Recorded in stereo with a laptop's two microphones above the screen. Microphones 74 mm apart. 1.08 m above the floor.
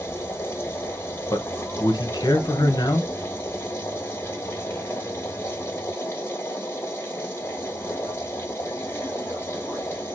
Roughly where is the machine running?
Left.